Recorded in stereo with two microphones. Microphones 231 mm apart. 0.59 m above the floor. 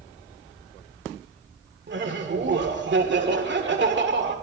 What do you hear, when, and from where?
1.9 s laughter: 50° right (ahead or behind), 1.9 m